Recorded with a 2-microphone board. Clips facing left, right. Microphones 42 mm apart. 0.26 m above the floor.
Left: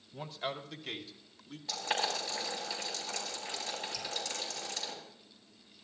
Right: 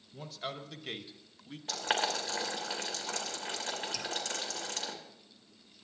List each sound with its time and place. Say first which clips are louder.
0.1 s a man speaking: left 2 dB; 20° left (ahead or behind), 1.2 m; by 1.6 s 35° right (ahead or behind), 1.5 m
1.7 s boiling: right 2 dB; 50° right (ahead or behind), 3.5 m
3.9 s dripping: right 2 dB; 80° right, 1.8 m